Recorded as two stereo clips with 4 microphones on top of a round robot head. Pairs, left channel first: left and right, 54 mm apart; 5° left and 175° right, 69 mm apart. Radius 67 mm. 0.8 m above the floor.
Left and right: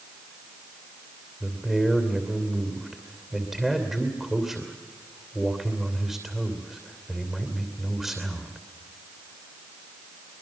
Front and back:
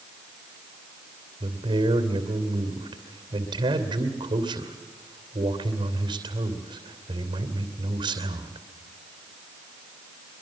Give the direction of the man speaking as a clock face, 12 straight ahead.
6 o'clock.